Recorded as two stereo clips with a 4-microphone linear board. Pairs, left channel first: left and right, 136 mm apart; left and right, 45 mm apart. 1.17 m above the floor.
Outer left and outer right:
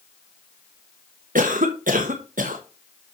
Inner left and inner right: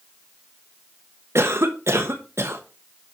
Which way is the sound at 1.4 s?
85° right.